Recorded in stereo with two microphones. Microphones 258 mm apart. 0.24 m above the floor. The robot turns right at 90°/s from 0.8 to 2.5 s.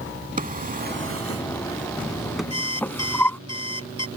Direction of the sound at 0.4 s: 35° right (ahead or behind).